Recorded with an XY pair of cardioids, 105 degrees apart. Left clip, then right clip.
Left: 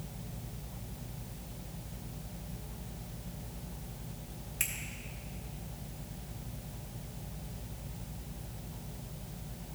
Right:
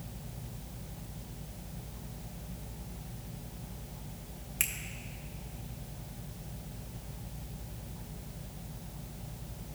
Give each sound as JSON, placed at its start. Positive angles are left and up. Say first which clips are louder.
{"t": 4.6, "sound": "a finger snap", "louder": "right 2 dB", "azimuth_deg": -45, "distance_m": 1.5}